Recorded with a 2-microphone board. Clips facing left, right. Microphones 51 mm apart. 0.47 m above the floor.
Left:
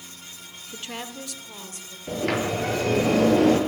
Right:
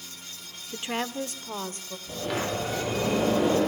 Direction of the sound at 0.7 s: 15° right (ahead or behind).